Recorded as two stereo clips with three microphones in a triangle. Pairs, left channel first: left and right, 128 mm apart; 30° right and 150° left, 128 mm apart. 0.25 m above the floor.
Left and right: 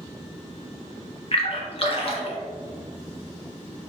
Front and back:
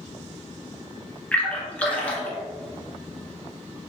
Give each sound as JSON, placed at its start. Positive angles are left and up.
{"t": 1.3, "sound": "a splash", "azimuth_deg": 50, "distance_m": 0.9}